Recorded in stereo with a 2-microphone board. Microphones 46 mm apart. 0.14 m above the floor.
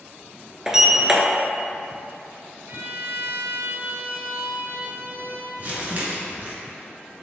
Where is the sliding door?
10° right (ahead or behind), 0.7 m.